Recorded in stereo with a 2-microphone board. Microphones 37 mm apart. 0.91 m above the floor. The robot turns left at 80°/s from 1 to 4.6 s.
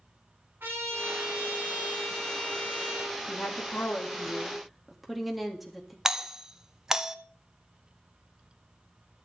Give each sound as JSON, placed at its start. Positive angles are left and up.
{"t": 0.6, "sound": "a trumpet", "azimuth_deg": -90, "distance_m": 7.5}
{"t": 3.3, "sound": "a woman speaking", "azimuth_deg": 100, "distance_m": 1.9}
{"t": 6.0, "sound": "a doorbell", "side_deg": -15, "distance_m": 0.6}